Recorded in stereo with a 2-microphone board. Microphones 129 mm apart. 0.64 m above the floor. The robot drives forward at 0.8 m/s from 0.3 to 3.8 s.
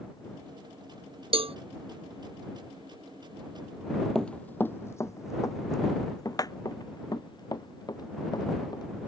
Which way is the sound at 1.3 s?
45° right (ahead or behind).